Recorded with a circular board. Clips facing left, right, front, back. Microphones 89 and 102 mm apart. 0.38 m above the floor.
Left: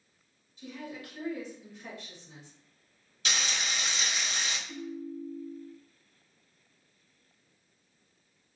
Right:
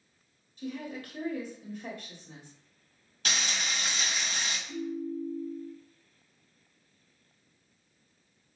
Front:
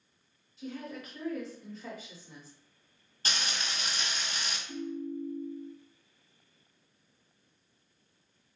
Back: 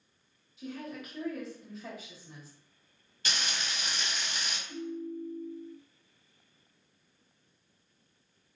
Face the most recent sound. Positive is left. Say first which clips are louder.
# right 4 dB, front 1 dB
turn(degrees=-60)